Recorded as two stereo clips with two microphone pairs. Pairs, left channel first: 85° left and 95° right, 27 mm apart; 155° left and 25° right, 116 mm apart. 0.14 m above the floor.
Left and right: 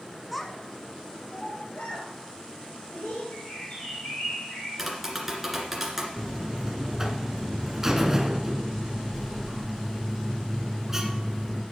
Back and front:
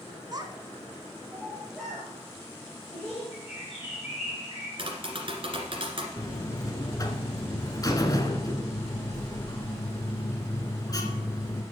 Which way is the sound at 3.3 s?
130° left.